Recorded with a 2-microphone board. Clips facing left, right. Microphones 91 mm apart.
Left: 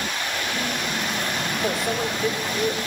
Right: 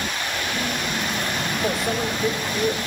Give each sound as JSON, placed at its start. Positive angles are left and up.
{"t": 1.6, "sound": "a microwave", "side_deg": 0, "distance_m": 1.0}